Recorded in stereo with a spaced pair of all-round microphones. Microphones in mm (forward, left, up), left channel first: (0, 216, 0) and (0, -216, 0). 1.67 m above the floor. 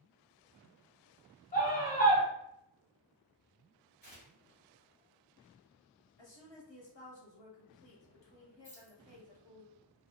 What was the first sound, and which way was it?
A scream, 20° left (ahead or behind).